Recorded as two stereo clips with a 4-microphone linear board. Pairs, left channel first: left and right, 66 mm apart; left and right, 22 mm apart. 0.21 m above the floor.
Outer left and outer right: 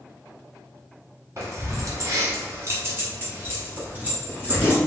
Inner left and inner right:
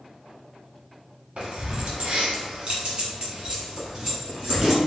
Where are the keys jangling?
50° right (ahead or behind), 1.2 m; by 4.8 s 25° right (ahead or behind), 2 m.